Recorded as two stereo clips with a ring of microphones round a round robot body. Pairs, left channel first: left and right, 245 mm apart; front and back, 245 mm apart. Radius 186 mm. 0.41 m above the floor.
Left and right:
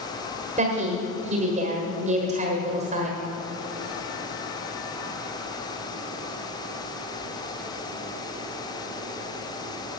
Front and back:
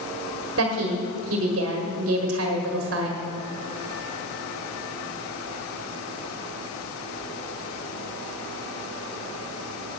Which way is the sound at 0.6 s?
155° right.